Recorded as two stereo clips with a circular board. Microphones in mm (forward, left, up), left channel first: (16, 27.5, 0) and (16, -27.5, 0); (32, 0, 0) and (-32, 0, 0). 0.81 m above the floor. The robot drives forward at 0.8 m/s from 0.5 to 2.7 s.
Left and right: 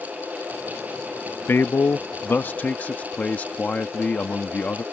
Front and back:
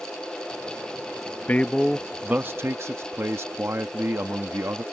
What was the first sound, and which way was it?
A man speaking, 55° left.